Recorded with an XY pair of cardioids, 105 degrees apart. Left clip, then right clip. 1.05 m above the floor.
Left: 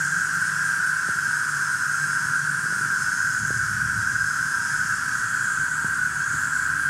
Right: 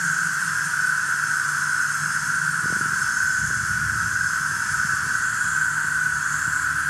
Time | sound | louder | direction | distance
0.0 | an insect | even | 65° right | 1.7 m